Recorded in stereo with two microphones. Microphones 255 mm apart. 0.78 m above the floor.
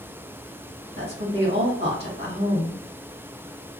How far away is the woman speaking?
About 1.4 m.